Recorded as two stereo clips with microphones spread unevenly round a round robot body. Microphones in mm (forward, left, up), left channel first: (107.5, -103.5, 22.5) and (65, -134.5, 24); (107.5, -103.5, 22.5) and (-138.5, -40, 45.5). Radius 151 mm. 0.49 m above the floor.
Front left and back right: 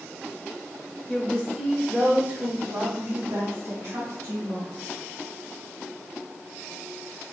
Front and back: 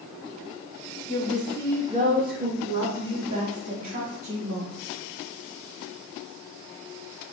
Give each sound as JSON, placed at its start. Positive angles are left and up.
{"t": 1.1, "sound": "a woman speaking", "azimuth_deg": 40, "distance_m": 1.1}